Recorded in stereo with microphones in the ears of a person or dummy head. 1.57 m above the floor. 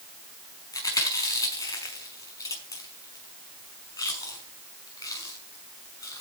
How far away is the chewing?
About 5.5 m.